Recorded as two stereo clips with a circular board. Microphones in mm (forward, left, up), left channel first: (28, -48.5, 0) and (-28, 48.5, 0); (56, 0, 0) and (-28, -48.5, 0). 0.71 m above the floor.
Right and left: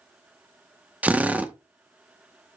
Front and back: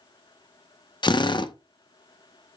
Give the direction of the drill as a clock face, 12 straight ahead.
10 o'clock.